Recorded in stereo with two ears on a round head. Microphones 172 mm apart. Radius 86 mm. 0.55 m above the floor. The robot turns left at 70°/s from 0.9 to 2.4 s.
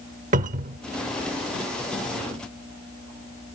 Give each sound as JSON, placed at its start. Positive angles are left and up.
{"t": 0.3, "sound": "a cupboard door", "side_deg": -40, "distance_m": 0.7}